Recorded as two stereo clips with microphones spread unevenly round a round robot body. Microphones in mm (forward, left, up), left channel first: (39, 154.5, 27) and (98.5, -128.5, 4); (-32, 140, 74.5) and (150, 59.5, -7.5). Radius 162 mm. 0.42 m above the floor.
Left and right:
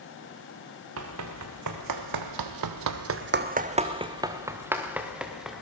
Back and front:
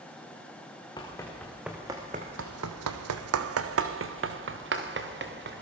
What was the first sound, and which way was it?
Running footsteps, 130° right.